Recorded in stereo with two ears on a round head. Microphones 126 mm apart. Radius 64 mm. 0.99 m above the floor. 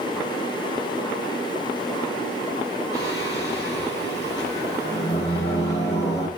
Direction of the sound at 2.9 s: 25° left (ahead or behind).